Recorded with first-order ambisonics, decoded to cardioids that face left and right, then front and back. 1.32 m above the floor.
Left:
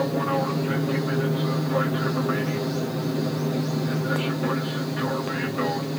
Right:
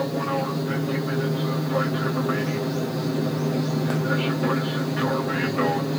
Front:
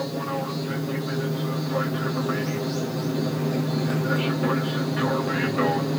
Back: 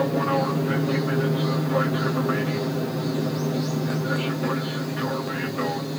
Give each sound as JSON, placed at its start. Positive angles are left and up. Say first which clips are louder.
{"t": 0.0, "sound": "an aircraft", "louder": "left 1 dB, back 6 dB", "azimuth_deg": 170}